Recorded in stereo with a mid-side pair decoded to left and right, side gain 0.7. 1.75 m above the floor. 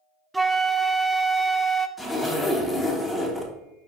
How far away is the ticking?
I don't hear ticking.